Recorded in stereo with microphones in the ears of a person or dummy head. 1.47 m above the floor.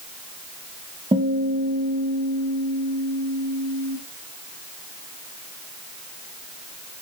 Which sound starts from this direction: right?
A guitar, at 1.1 s.